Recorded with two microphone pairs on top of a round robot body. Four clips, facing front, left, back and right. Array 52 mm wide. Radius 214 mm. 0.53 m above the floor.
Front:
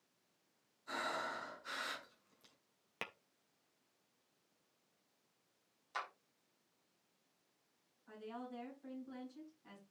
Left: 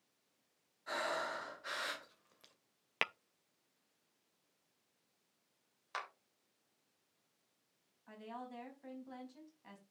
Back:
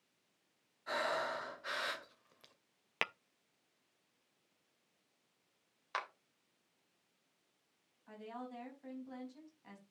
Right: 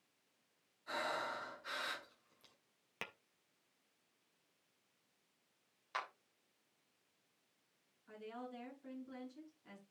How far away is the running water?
No running water in this recording.